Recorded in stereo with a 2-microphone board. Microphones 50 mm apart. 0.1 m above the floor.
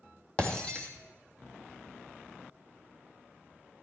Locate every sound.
0.4 s breaking glass: 25° left (ahead or behind), 2.5 m